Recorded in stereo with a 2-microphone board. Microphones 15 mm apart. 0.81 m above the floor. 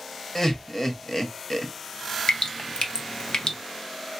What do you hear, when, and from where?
0.3 s laughter: 25° left (ahead or behind), 0.9 m
2.3 s dripping: 75° left (ahead or behind), 0.7 m